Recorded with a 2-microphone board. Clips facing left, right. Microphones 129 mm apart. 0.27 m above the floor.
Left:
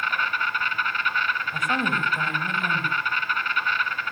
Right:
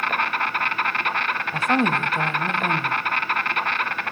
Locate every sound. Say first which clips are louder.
0.0 s an insect: right 3 dB; 70° right (ahead or behind), 0.8 m
1.5 s a woman speaking: right 7 dB; 30° right (ahead or behind), 1.1 m